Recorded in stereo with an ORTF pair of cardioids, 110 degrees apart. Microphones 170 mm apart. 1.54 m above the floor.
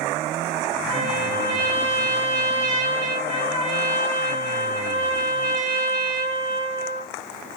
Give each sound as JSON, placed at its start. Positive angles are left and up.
{"t": 0.9, "sound": "a trumpet", "azimuth_deg": -35, "distance_m": 1.6}